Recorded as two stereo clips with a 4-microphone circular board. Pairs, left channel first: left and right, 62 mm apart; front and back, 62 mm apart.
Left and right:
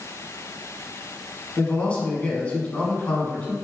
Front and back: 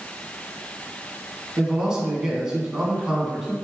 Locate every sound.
1.6 s a man speaking: 120° left, 1.2 m